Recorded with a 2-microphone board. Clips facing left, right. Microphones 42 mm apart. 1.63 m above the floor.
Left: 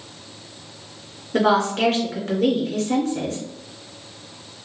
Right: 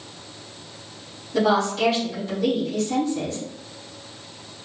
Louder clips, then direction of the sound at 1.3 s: Left 2 dB; 70° left (ahead or behind).